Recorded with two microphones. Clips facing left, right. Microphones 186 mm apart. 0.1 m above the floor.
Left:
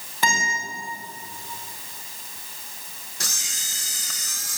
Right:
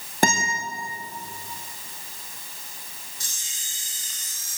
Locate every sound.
0.2 s a guitar: 50° right (ahead or behind), 5 m
3.2 s a camera shutter: 80° left, 1.4 m